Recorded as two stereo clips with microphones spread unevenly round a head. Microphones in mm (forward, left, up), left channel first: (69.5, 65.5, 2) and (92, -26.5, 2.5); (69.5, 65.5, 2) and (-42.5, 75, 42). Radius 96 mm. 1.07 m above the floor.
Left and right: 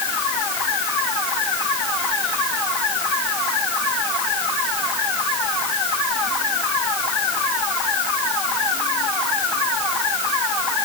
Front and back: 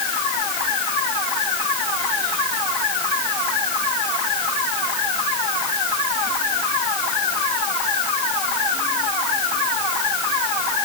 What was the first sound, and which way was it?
Only background noise.